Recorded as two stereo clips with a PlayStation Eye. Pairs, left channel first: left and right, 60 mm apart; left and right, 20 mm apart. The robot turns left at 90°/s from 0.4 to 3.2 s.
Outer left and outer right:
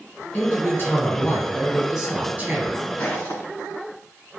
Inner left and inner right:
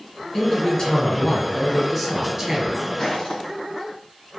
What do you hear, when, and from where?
0.3 s a man speaking: 130° left, 1.4 m; by 2.8 s 85° right, 1.4 m
3.0 s footsteps: 25° left (ahead or behind), 1.5 m; by 3.5 s 45° left (ahead or behind), 1.5 m